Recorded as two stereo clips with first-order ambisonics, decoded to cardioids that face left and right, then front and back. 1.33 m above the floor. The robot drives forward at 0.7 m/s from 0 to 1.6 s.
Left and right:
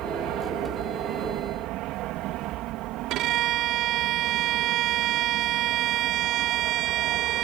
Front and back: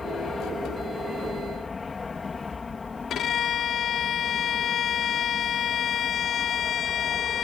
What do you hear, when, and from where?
0.0 s an aircraft: 70° right
3.1 s a violin: 55° right